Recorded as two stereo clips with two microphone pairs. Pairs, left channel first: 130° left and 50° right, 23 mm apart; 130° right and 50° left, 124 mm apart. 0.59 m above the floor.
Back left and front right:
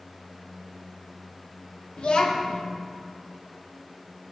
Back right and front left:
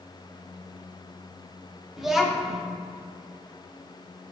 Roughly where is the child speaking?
Behind left.